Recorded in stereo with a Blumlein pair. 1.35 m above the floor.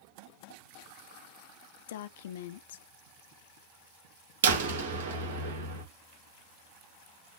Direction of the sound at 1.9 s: 55° left.